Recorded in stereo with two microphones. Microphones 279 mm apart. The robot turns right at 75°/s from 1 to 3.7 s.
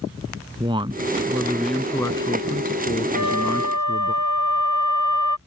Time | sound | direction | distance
0.6 | a man speaking | 15° right (ahead or behind) | ?
3.1 | a flute | 115° right | ?